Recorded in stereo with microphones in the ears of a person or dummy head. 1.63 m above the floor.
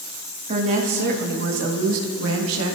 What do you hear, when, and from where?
0.5 s a woman speaking: 35° right (ahead or behind), 2 m; by 2.8 s 80° right, 2 m